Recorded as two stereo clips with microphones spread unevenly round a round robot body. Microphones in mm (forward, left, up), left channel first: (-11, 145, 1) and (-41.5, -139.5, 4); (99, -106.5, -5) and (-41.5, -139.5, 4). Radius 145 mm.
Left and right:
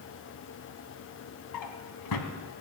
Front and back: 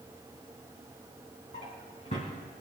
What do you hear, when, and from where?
1.5 s a drawer: 75° left, 1.8 m